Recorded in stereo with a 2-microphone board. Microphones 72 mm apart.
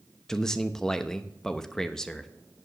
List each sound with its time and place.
0.3 s a man speaking: 10° left (ahead or behind), 0.5 m